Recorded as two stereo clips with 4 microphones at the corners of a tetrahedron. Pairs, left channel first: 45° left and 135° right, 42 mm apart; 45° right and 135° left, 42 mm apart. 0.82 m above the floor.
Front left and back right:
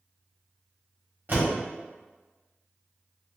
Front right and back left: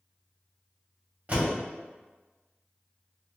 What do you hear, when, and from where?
1.3 s a door slam: 170° right, 1.5 m